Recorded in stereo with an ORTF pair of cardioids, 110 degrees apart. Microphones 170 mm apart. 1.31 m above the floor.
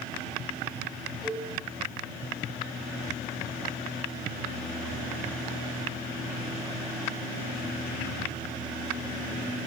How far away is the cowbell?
About 5.5 m.